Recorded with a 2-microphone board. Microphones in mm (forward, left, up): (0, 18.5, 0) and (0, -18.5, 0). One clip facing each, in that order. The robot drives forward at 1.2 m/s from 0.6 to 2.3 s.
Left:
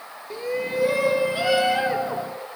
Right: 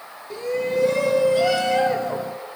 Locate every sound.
0.3 s a shout: 10° left (ahead or behind), 1.9 m; by 2.3 s 15° left (ahead or behind), 1.5 m